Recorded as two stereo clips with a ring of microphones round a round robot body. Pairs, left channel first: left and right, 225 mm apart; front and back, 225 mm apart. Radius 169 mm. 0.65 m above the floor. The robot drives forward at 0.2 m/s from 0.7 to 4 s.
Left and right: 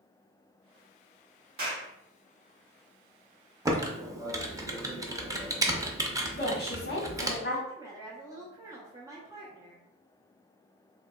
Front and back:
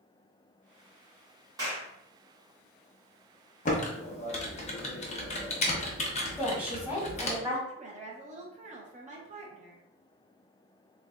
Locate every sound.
1.6 s a clap: 110° right, 1.1 m; by 1.9 s 115° right, 1.1 m
3.6 s typing on a keyboard: 20° right, 0.7 m; by 7.4 s 25° right, 0.7 m
6.4 s a woman speaking: 100° left, 1.4 m
7.7 s a woman speaking: 155° right, 0.6 m